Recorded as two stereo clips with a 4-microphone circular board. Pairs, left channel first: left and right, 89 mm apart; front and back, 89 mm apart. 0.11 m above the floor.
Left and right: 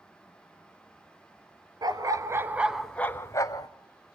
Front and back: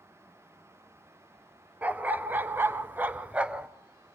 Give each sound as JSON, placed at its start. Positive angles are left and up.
{"t": 1.8, "sound": "a dog barking", "azimuth_deg": -110, "distance_m": 0.9}